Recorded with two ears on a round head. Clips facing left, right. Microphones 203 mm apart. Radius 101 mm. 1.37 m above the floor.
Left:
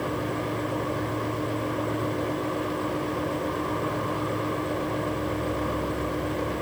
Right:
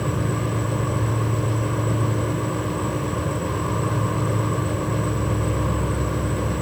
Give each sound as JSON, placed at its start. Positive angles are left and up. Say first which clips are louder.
{"t": 0.0, "sound": "an insect", "louder": "right 3 dB", "side_deg": -50}